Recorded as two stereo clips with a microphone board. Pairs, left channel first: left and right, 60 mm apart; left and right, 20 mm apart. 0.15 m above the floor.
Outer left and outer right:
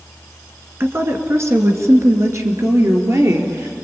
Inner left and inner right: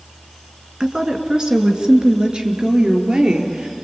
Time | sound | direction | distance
0.8 | a woman speaking | 45° right (ahead or behind) | 2 m